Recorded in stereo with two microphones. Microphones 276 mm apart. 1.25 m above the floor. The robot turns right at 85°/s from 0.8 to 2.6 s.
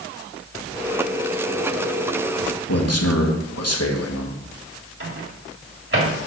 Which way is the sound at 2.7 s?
60° left (ahead or behind).